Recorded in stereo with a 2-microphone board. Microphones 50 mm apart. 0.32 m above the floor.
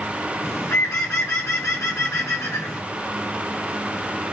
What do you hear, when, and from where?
0.4 s a bird: 65° left (ahead or behind), 1.7 m